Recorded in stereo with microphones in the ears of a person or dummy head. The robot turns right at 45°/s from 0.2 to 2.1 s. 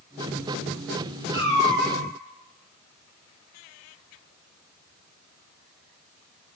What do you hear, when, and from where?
1.3 s a cat meowing: 20° left (ahead or behind), 0.7 m; by 2.0 s 5° left (ahead or behind), 0.7 m